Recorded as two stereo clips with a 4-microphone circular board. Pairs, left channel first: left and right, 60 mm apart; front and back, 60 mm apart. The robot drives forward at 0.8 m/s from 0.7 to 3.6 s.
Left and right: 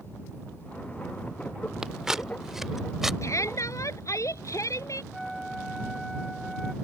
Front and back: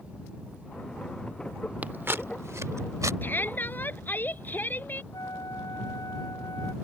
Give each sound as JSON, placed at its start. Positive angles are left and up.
{"t": 1.8, "sound": "scissors", "azimuth_deg": -155}
{"t": 3.2, "sound": "a shout", "azimuth_deg": 55}
{"t": 5.1, "sound": "a flute", "azimuth_deg": 0}